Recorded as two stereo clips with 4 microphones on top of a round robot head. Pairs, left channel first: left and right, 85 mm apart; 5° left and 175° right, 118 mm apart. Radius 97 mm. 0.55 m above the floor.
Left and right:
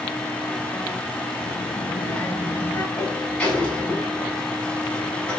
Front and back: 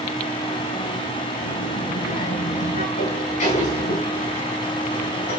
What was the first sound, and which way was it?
A child speaking, 10° left.